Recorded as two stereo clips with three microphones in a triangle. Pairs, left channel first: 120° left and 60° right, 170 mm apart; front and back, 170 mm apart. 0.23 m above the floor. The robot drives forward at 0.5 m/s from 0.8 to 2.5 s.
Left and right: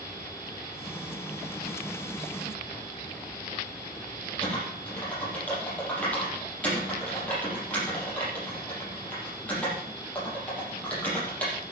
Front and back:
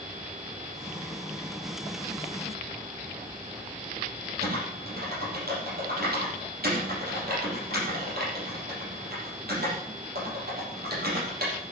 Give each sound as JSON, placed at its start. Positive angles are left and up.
{"t": 4.4, "sound": "typing on a keyboard", "azimuth_deg": -160, "distance_m": 5.5}